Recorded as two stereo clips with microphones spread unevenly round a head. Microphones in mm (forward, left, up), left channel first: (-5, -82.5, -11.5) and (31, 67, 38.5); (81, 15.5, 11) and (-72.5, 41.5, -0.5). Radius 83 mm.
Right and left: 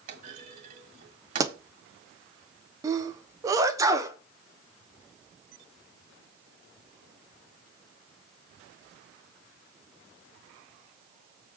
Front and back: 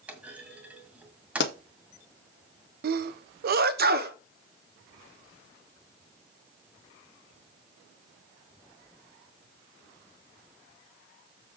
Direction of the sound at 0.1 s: 85° left.